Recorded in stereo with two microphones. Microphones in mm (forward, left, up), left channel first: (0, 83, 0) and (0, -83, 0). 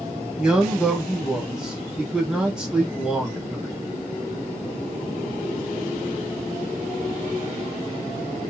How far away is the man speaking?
About 1.1 m.